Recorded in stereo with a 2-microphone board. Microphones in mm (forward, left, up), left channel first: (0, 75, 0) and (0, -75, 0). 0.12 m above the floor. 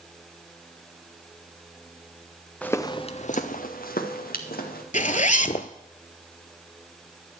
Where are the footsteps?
10° left (ahead or behind), 1.0 m; by 4.8 s 85° left, 2.5 m.